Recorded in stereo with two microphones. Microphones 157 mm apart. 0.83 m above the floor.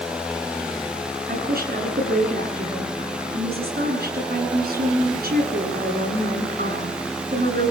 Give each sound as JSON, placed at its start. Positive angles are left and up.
{"t": 1.3, "sound": "a woman speaking", "side_deg": -80, "distance_m": 9.0}